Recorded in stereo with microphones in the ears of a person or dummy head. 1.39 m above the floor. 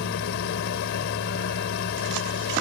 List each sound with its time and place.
0.0 s a fan: 60° left (ahead or behind)